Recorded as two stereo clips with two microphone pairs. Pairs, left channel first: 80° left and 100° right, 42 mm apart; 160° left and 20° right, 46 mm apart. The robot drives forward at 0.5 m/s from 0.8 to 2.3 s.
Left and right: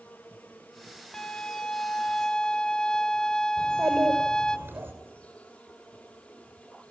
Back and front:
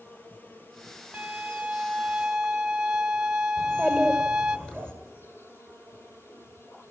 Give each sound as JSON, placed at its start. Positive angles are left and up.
{"t": 0.0, "sound": "an insect", "azimuth_deg": 120, "distance_m": 3.0}
{"t": 1.1, "sound": "a violin", "azimuth_deg": 20, "distance_m": 1.3}
{"t": 3.6, "sound": "a child speaking", "azimuth_deg": -125, "distance_m": 7.5}